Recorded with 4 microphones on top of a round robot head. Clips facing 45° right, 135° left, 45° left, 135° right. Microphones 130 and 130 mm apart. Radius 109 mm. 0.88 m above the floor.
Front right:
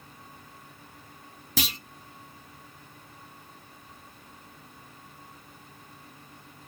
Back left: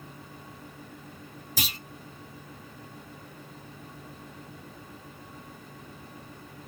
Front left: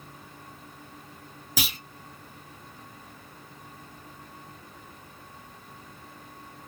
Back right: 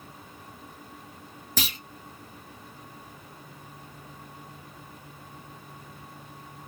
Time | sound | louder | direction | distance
1.6 | a clunk | front right 5 dB, even | 35° right | 1.2 m